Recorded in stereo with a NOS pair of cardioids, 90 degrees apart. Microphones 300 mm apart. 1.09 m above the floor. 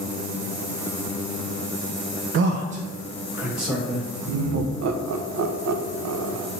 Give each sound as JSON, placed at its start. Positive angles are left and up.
{"t": 2.3, "sound": "a man speaking", "azimuth_deg": -50, "distance_m": 0.5}
{"t": 4.3, "sound": "laughter", "azimuth_deg": -65, "distance_m": 0.6}